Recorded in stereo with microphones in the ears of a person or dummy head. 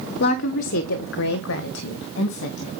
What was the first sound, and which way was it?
A woman speaking, 55° left (ahead or behind).